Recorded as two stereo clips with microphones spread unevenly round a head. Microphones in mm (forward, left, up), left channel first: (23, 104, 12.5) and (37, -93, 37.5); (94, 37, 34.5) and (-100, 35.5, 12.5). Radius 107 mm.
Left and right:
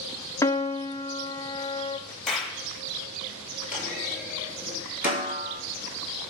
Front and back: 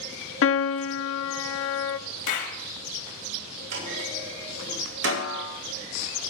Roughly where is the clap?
Ahead.